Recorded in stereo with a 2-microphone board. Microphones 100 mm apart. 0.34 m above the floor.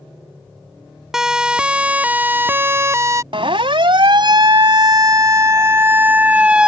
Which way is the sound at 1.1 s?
5° right (ahead or behind).